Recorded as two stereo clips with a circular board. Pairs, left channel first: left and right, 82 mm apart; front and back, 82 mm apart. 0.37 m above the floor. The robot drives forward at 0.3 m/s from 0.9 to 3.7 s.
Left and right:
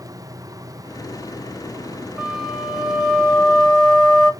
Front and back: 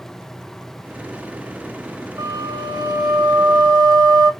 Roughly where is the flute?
Behind.